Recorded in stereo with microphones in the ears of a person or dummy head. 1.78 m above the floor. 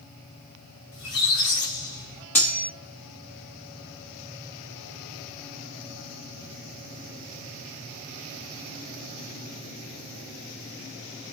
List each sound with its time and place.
0.9 s a squeak: 35° left (ahead or behind), 1.2 m
2.4 s cutlery clinking: 10° left (ahead or behind), 1.0 m